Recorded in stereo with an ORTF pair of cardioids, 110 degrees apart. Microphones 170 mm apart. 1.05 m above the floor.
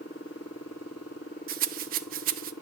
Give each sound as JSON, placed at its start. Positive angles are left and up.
{"t": 1.5, "sound": "a rattle", "azimuth_deg": -60, "distance_m": 0.8}